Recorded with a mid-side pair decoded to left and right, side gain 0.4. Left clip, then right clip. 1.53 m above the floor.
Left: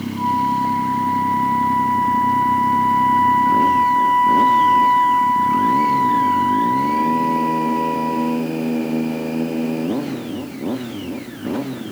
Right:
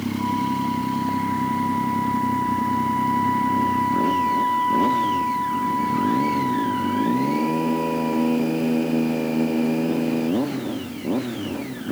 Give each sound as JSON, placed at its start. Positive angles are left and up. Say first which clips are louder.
{"t": 0.2, "sound": "a flute", "louder": "left 7 dB", "azimuth_deg": 55}